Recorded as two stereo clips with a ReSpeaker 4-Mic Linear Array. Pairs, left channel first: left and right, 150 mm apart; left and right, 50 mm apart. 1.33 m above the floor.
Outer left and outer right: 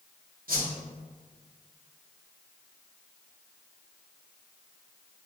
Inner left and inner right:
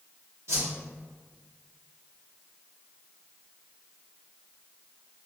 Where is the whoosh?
70° right (ahead or behind), 1.4 m.